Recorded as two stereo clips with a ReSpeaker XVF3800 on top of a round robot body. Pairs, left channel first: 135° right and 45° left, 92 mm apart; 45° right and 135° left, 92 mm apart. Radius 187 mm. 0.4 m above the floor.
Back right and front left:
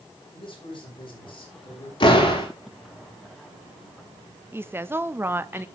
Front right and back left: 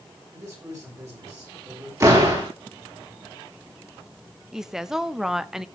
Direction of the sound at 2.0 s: 170° right.